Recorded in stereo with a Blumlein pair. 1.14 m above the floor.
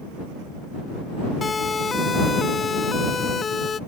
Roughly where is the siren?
Ahead.